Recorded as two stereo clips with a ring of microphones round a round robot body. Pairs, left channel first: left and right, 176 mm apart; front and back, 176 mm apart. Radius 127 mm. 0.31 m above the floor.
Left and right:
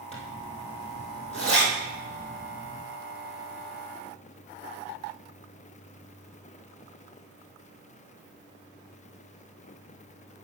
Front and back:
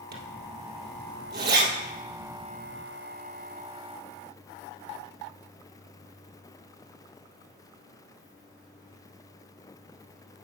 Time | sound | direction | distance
0.1 | a zipper | 155° left | 1.9 m